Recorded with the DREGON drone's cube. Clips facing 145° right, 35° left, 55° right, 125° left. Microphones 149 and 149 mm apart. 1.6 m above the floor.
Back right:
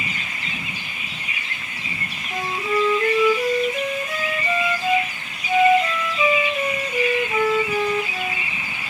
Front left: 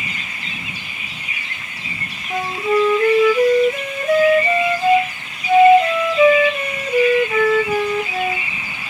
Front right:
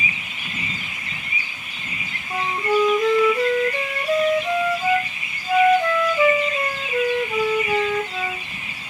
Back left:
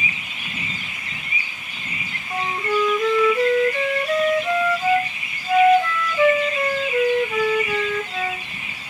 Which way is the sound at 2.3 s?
20° left.